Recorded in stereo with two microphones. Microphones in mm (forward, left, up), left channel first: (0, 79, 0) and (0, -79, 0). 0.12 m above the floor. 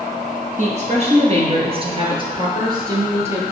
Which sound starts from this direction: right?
A woman speaking, at 0.6 s.